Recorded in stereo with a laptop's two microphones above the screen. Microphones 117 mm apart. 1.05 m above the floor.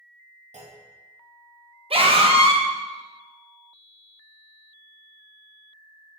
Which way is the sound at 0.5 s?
90° right.